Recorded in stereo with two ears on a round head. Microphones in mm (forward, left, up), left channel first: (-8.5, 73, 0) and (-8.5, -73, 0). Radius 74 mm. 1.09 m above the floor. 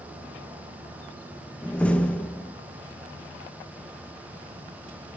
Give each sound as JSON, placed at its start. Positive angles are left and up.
{"t": 1.6, "sound": "a door slam", "side_deg": 10, "distance_m": 0.7}